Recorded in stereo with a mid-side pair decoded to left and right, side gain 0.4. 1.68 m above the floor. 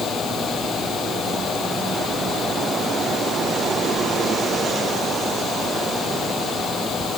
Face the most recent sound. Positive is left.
turn(degrees=65)